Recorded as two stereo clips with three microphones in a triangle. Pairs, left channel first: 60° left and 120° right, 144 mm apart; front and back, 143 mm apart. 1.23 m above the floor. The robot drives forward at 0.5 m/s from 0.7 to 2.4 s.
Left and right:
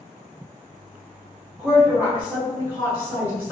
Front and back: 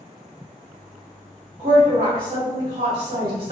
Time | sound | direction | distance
1.6 | a woman speaking | 155° left | 1.3 m